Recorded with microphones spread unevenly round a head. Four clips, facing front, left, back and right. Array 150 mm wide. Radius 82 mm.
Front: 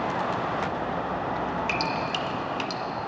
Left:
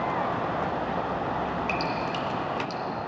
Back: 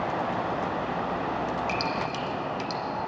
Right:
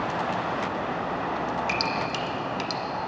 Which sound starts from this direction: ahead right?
Dripping, at 1.7 s.